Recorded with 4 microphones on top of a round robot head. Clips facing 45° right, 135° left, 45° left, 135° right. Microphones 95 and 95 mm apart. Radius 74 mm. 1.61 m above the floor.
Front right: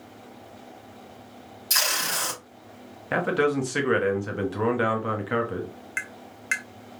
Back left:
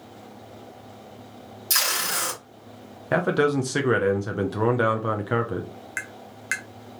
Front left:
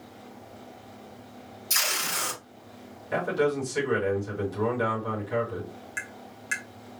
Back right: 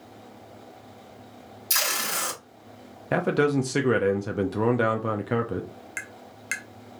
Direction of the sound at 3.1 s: 155° right.